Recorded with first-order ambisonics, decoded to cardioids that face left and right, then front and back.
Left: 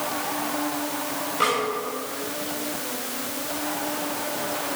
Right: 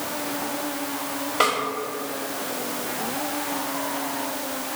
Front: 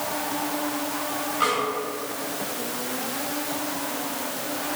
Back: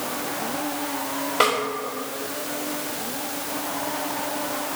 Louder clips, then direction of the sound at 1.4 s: Right 2 dB, back 3 dB; 150° right.